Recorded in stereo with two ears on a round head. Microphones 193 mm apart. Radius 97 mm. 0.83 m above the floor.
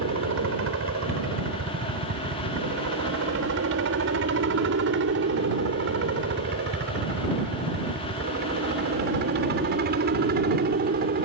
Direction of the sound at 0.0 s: 70° right (ahead or behind).